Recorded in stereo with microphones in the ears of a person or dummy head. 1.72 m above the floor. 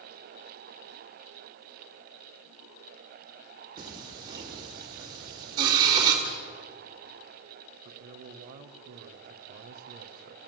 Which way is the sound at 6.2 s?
75° left (ahead or behind).